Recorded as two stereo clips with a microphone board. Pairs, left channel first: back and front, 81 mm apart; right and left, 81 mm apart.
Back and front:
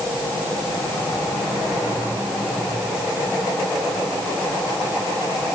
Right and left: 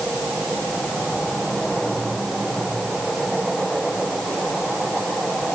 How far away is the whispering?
I don't hear whispering.